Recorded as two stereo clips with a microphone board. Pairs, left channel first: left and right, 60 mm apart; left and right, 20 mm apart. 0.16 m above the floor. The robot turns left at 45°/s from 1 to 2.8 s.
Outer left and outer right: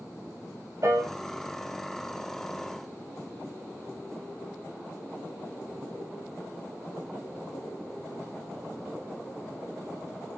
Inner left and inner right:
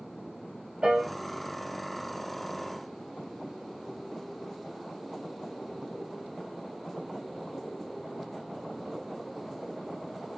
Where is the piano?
65° right (ahead or behind), 2 m.